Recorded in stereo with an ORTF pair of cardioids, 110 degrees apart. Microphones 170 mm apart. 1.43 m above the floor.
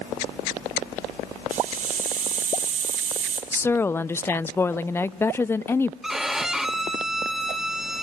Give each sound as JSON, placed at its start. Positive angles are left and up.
{"t": 1.5, "sound": "a hiss", "azimuth_deg": -50, "distance_m": 3.5}
{"t": 3.5, "sound": "a woman speaking", "azimuth_deg": 15, "distance_m": 0.5}
{"t": 6.0, "sound": "a violin", "azimuth_deg": 0, "distance_m": 1.6}